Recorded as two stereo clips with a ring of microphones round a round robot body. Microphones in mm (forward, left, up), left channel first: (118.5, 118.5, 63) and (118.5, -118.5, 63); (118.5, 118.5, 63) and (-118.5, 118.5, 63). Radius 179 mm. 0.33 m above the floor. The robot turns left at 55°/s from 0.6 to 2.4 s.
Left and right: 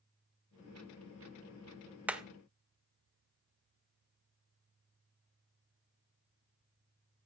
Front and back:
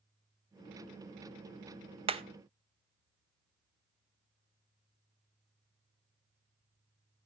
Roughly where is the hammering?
Behind.